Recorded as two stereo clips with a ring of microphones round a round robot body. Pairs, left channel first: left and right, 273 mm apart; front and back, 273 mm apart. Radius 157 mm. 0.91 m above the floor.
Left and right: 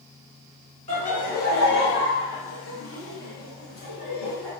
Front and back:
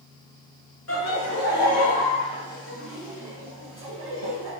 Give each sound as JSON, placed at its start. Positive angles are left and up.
{"t": 0.9, "sound": "laughter", "azimuth_deg": 30, "distance_m": 1.4}